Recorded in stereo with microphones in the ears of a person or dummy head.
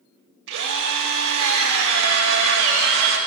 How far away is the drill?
About 1.4 m.